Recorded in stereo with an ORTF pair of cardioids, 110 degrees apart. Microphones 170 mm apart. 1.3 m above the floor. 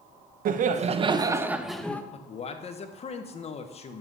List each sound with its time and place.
0.5 s laughter: 55° right, 0.9 m; by 2.0 s 10° left, 1.0 m
2.1 s a man speaking: 35° left, 1.1 m